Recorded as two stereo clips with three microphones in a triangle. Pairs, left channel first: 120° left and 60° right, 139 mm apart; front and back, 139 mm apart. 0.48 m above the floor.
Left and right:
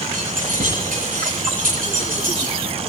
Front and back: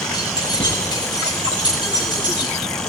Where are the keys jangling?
55° right, 9 m.